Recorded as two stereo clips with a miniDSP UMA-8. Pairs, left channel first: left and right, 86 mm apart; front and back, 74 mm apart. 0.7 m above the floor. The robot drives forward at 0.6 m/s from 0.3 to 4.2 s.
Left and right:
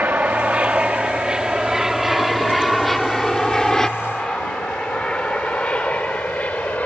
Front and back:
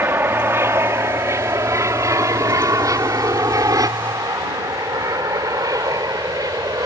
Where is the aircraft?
150° right; by 6.9 s 160° left.